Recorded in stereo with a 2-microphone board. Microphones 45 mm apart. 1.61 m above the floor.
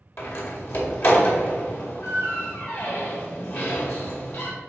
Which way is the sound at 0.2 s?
55° left (ahead or behind).